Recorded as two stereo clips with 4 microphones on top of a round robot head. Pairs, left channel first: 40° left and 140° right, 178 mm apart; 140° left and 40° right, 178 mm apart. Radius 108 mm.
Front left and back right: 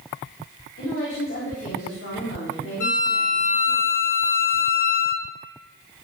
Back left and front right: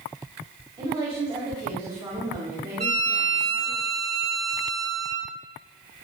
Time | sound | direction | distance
0.8 | a woman speaking | 25° left | 4.5 m
2.8 | a violin | 20° left | 6.5 m